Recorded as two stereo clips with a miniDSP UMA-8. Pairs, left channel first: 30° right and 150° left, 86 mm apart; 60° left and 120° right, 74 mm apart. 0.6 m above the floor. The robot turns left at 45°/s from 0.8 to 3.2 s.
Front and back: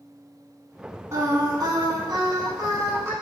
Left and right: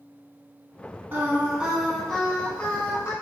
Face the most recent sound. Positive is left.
turn(degrees=95)